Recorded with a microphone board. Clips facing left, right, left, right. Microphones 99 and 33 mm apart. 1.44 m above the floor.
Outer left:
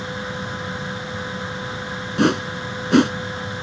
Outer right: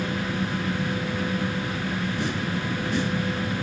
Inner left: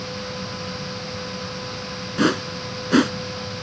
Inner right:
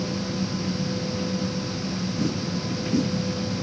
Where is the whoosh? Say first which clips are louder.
Outer left 8 dB, inner left 10 dB; 65° left (ahead or behind).